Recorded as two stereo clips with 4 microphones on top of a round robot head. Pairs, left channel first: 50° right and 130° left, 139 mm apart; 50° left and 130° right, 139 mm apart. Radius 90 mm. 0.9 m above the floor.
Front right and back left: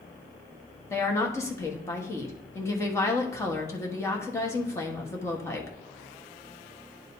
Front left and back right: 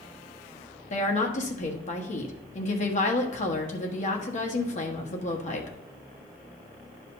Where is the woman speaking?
20° left, 1.3 m.